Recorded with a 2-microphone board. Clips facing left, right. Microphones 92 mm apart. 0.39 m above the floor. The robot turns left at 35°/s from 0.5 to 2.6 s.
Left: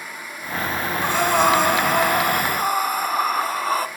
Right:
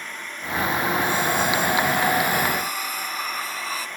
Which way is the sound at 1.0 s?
105° left.